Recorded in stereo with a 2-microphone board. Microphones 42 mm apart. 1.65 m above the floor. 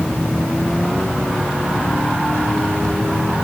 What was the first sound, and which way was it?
Only background noise.